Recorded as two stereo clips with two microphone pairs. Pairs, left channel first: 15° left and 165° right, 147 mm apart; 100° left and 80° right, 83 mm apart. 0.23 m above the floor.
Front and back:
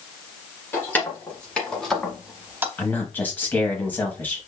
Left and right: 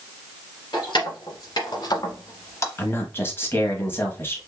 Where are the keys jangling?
95° left, 1.8 m; by 2.7 s 135° left, 0.7 m.